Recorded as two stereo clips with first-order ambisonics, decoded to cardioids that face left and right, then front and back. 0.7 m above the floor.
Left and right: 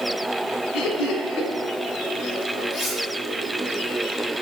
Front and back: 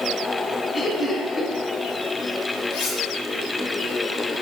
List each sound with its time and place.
0.7 s laughter: 65° left, 2.5 m
2.7 s cutlery clinking: 5° left, 5.5 m